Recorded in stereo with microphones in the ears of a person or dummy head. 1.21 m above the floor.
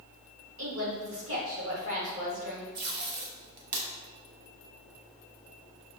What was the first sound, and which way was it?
A woman speaking, 70° right (ahead or behind).